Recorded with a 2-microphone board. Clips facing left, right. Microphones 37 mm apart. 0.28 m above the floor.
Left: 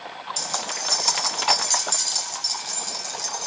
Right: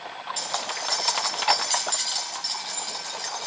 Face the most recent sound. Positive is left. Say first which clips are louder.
# even
turn(degrees=-25)  # may be behind; listen again after turning